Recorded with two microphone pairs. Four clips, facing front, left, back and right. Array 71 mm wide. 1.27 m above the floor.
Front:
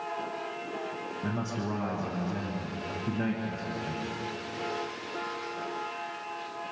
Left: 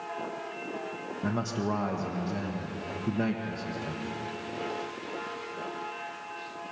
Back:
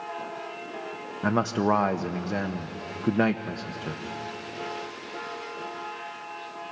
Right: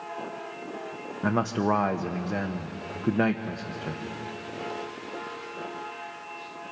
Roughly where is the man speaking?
Behind right.